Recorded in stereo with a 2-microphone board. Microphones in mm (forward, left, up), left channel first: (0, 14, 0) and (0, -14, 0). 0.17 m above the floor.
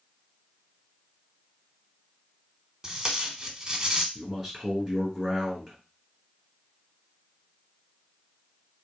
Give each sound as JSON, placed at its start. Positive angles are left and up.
{"t": 2.8, "sound": "tape being pulled", "side_deg": -20, "distance_m": 1.0}
{"t": 4.2, "sound": "a man speaking", "side_deg": 0, "distance_m": 3.0}